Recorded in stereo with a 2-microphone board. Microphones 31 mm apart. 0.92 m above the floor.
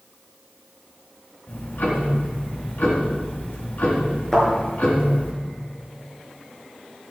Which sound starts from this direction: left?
Ticking, at 1.5 s.